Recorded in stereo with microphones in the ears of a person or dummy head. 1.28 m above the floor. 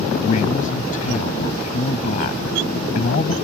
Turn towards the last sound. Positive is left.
turn(degrees=45)  # may be behind; listen again after turning